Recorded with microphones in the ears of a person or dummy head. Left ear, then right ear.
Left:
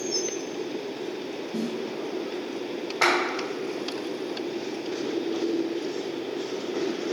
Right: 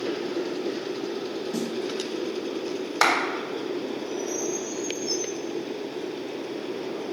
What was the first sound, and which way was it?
A snare drum, 70° right (ahead or behind).